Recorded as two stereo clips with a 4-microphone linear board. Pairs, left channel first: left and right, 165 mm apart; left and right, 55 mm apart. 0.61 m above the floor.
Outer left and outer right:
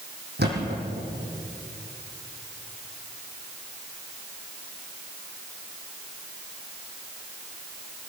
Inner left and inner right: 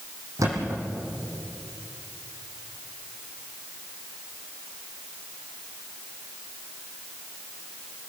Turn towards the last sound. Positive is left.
turn(degrees=-85)